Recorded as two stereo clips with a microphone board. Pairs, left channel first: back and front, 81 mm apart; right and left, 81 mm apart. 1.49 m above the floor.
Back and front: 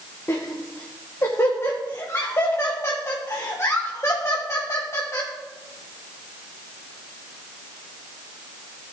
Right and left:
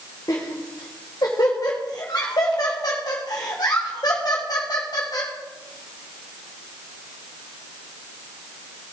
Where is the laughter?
125° right, 1.8 m.